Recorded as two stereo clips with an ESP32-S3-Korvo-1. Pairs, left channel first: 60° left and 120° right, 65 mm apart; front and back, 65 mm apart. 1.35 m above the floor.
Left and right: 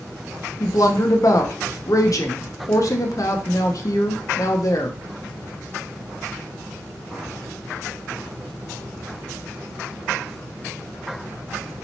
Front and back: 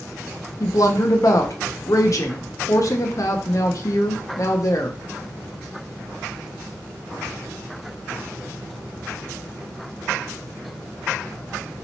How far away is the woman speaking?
About 0.7 m.